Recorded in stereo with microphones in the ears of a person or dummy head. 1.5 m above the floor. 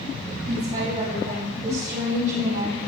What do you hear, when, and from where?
0.5 s a woman speaking: 45° right (ahead or behind), 3.5 m; by 2.8 s 55° right (ahead or behind), 2.5 m